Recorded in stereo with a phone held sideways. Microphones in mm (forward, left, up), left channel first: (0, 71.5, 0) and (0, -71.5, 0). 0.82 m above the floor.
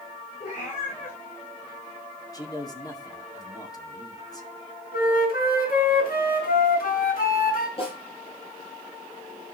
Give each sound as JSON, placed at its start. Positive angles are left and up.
{"t": 0.4, "sound": "a cat meowing", "side_deg": 55, "distance_m": 7.5}
{"t": 2.3, "sound": "a man speaking", "side_deg": 25, "distance_m": 2.0}
{"t": 4.9, "sound": "a flute", "side_deg": 75, "distance_m": 3.5}
{"t": 7.8, "sound": "a snare drum", "side_deg": 40, "distance_m": 9.0}